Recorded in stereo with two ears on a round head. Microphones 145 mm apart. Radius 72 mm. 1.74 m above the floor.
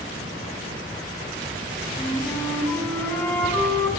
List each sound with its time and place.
2.0 s a flute: 10° left (ahead or behind), 5.5 m